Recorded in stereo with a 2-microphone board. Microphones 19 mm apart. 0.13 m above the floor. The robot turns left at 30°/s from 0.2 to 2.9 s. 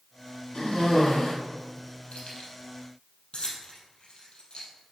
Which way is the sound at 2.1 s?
70° left (ahead or behind).